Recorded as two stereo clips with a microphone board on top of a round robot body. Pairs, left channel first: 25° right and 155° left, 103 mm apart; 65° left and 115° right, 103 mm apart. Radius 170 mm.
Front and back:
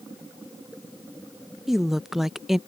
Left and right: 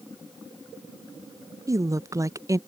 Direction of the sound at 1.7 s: 120° right.